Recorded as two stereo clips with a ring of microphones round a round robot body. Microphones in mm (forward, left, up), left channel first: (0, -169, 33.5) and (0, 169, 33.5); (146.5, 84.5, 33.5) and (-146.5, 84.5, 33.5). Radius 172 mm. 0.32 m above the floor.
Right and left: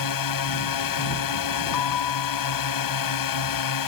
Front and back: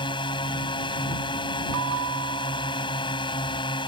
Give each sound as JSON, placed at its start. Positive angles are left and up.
{"t": 0.0, "sound": "a drone", "azimuth_deg": -75}
{"t": 1.7, "sound": "a bell", "azimuth_deg": -125}